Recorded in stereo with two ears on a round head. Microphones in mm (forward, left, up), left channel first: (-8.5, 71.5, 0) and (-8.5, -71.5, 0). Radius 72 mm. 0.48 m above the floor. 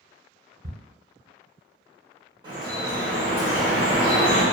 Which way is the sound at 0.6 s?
30° right (ahead or behind).